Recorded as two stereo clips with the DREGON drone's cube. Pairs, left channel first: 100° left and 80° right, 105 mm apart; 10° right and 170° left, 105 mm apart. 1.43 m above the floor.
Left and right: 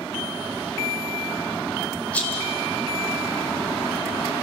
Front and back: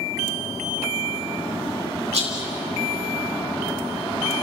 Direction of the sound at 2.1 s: Straight behind.